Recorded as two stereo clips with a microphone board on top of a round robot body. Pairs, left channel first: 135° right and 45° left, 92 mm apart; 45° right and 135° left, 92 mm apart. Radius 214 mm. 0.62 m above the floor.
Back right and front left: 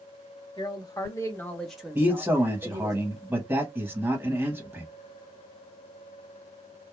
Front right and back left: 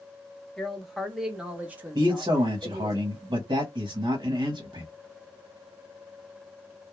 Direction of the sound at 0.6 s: 130° right.